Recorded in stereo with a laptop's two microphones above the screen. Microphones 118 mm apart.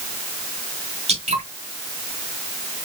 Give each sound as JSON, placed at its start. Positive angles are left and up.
{"t": 1.1, "sound": "dripping", "side_deg": -60, "distance_m": 3.0}